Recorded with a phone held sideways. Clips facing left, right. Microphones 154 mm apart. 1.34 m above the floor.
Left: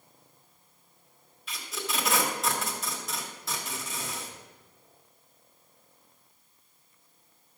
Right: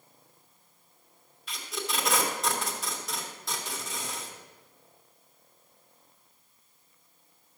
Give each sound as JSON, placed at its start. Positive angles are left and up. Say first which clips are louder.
{"t": 1.5, "sound": "tape being pulled", "louder": "right 1 dB", "side_deg": 0, "distance_m": 1.7}